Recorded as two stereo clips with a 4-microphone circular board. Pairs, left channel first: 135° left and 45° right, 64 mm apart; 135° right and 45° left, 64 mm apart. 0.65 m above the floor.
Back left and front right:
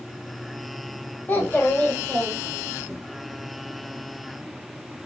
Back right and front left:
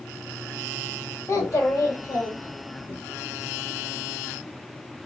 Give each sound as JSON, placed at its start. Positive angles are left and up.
{"t": 1.3, "sound": "a child speaking", "azimuth_deg": -165, "distance_m": 1.8}